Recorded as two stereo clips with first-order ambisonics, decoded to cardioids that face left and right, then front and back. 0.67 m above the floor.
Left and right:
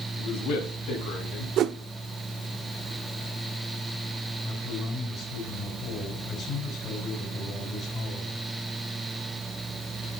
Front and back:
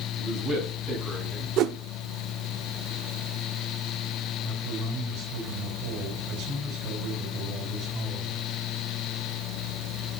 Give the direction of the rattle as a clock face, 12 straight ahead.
I don't hear a rattle.